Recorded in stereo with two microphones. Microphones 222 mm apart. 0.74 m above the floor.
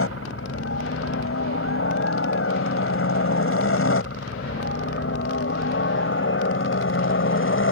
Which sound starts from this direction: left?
A helicopter, at 0.0 s.